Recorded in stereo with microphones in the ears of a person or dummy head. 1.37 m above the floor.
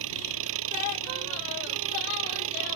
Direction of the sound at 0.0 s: 70° right (ahead or behind).